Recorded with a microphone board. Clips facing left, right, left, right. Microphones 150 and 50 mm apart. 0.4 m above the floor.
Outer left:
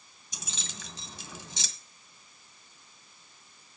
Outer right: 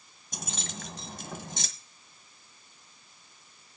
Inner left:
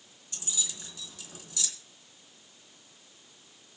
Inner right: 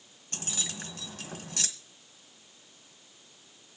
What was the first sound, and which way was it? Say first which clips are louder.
Keys jangling: outer right 6 dB, inner right 3 dB; 55° right (ahead or behind).